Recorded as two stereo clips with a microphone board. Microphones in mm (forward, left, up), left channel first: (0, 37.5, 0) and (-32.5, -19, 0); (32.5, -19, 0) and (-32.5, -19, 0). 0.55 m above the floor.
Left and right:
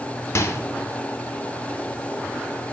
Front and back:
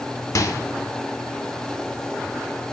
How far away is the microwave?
About 0.8 m.